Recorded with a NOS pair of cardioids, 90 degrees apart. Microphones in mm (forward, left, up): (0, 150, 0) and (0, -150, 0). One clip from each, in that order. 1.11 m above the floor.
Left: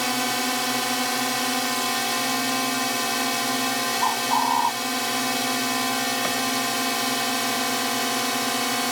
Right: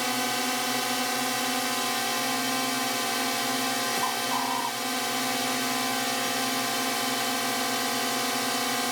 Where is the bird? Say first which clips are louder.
Left 6 dB; 45° left.